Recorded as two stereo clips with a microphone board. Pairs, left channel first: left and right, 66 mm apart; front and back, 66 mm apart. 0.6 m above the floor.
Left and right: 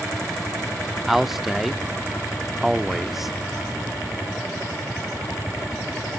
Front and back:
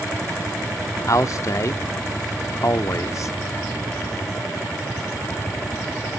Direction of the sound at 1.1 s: 5° right.